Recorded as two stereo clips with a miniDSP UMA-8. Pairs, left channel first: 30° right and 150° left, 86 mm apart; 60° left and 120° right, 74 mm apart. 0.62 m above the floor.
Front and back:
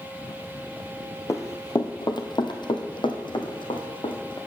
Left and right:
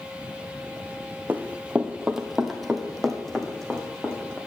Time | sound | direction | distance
1.3 | running footsteps | 70° right | 0.9 m